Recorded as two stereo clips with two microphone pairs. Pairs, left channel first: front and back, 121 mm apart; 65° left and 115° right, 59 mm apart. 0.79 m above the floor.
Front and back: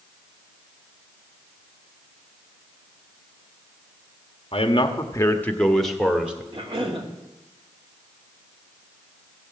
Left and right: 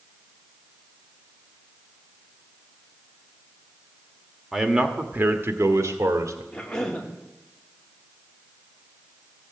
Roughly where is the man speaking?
Ahead right.